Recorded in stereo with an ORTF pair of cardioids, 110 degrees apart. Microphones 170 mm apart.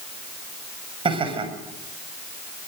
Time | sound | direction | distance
1.1 | laughter | 30° right | 7 m